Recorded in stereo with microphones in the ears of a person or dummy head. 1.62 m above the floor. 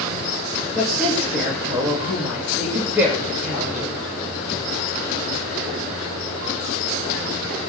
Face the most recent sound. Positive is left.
turn(degrees=-10)  # may be behind; listen again after turning